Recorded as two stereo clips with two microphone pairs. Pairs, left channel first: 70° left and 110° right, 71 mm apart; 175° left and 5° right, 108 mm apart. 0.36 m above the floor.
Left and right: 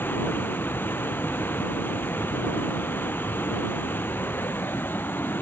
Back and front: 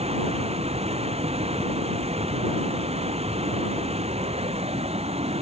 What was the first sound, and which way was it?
Running water, 10° left.